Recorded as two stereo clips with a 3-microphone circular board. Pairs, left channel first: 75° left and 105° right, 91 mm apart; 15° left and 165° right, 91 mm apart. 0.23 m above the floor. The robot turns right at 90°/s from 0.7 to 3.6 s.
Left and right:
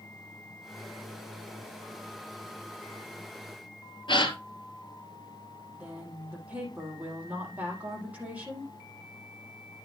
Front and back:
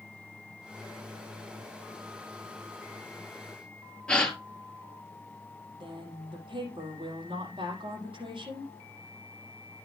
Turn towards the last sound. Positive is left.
turn(degrees=180)